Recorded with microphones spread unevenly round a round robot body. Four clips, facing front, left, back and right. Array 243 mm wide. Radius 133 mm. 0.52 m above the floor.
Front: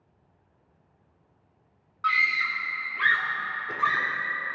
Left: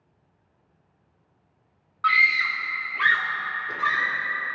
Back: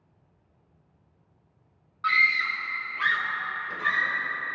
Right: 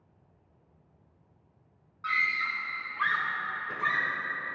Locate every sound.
2.0 s a scream: 110° left, 1.6 m; by 4.2 s 10° left, 1.6 m